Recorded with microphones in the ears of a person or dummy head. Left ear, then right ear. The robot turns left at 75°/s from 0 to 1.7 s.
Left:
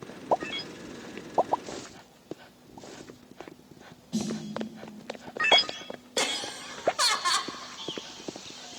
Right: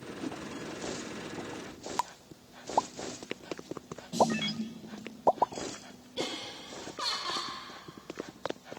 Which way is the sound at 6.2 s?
60° left (ahead or behind).